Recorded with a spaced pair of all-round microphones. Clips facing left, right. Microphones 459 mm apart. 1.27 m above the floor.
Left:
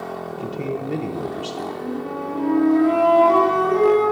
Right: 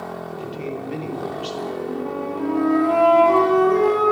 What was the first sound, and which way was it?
A man speaking, 65° left (ahead or behind).